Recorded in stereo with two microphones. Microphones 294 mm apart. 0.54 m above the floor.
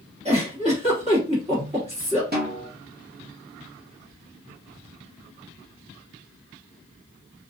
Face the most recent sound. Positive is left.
turn(degrees=-35)  # may be behind; listen again after turning